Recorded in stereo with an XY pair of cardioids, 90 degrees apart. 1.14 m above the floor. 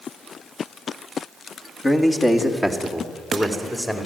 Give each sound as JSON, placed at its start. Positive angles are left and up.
{"t": 1.8, "sound": "a man speaking", "azimuth_deg": 25, "distance_m": 2.5}